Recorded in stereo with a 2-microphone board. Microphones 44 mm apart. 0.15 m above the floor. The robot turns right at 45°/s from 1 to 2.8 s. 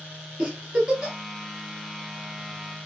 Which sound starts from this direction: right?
A giggle, at 0.4 s.